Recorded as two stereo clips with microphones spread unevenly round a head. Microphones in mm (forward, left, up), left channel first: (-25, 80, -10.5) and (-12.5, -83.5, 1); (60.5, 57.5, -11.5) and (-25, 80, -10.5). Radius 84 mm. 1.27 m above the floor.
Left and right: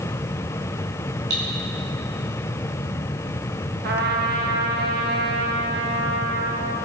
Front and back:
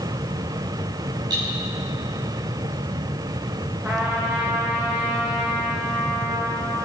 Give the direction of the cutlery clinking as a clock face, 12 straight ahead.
4 o'clock.